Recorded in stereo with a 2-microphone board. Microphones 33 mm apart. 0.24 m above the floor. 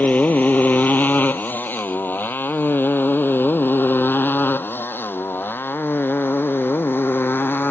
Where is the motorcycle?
45° left (ahead or behind); by 7.7 s 85° left.